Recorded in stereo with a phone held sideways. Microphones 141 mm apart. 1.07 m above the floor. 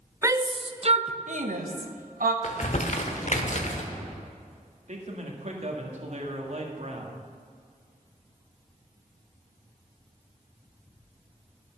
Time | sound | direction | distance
0.2 | a shout | 20° right (ahead or behind) | 0.6 m
2.4 | crumpling | 60° left (ahead or behind) | 1.1 m
4.9 | a man speaking | 55° right (ahead or behind) | 1.7 m